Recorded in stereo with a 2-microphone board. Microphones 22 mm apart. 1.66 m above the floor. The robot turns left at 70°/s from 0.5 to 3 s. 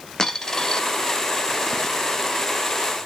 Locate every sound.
0.2 s a dropped coin: 20° left (ahead or behind), 1.2 m; by 0.8 s 30° left (ahead or behind), 1.2 m